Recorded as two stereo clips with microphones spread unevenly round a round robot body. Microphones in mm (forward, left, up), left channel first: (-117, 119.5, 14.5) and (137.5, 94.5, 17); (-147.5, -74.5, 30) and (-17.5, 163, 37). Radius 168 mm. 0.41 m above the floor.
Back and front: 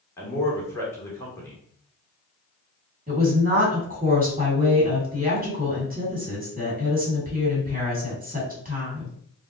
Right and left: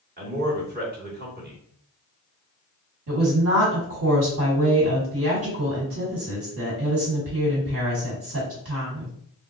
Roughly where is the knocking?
I don't hear knocking.